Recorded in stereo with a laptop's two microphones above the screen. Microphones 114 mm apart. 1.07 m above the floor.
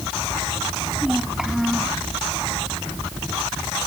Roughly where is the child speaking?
Centre.